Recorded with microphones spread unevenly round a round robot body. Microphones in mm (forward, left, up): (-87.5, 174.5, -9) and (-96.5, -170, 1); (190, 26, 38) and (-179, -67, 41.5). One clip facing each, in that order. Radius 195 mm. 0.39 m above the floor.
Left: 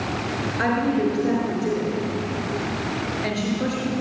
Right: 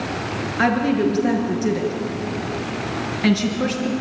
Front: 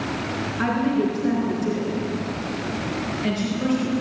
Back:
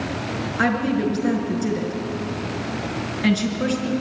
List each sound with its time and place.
0.6 s a woman speaking: 130° right, 5.5 m